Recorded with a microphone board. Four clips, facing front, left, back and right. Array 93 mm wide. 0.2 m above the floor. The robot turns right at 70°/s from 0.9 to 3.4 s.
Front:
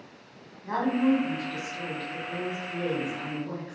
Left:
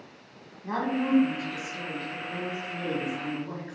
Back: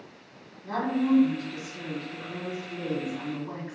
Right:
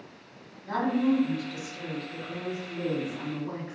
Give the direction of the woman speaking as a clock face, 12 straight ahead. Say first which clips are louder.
Right 2 dB, front 2 dB; 10 o'clock.